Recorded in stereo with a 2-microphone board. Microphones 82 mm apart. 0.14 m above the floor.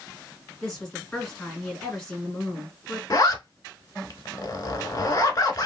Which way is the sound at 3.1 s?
50° left (ahead or behind).